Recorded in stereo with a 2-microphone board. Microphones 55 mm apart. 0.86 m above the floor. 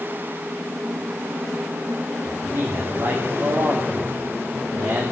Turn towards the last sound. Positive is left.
turn(degrees=-55)  # may be behind; listen again after turning